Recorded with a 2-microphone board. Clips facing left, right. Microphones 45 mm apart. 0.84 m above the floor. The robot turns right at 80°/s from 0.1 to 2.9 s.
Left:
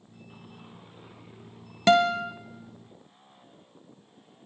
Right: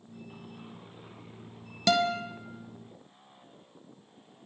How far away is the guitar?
About 0.7 m.